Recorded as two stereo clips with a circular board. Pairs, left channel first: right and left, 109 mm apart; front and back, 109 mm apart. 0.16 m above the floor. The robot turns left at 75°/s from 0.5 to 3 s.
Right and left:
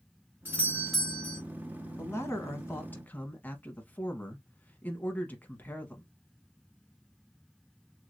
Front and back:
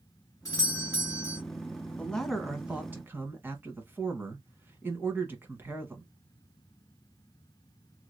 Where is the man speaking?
65° right, 1.1 m; by 6.0 s 140° right, 1.1 m.